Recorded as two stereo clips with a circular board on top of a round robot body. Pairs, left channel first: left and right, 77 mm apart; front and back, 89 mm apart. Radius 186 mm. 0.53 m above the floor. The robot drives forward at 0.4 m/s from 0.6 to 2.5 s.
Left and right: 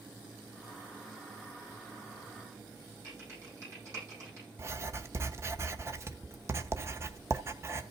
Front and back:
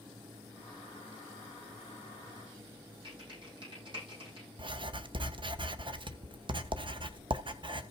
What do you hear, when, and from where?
3.0 s typing on a keyboard: 145° right, 8.5 m
4.6 s writing: 145° right, 1.0 m